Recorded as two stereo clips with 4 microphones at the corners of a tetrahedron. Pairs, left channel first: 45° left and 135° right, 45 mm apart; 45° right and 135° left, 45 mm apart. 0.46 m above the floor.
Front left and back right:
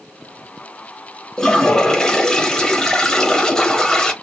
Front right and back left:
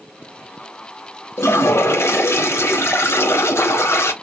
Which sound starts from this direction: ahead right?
A toilet flushing, at 1.4 s.